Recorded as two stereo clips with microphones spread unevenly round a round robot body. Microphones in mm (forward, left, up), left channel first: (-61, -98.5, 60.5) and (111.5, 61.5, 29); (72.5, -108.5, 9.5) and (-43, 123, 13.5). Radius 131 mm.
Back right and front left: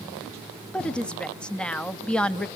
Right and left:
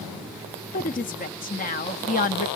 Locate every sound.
0.7 s a woman speaking: 40° right, 0.6 m